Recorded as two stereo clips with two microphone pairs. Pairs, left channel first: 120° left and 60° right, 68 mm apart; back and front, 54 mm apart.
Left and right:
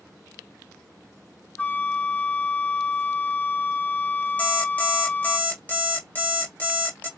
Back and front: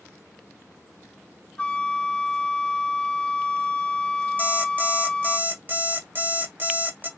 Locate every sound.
1.6 s a flute: 150° left, 0.6 m
4.4 s an alarm clock: 55° left, 1.6 m